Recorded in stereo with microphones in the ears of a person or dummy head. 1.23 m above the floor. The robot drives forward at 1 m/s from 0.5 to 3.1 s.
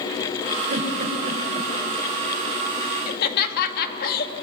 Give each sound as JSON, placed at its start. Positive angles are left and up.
{"t": 0.7, "sound": "a giggle", "side_deg": -50, "distance_m": 4.0}
{"t": 3.1, "sound": "laughter", "side_deg": 55, "distance_m": 2.5}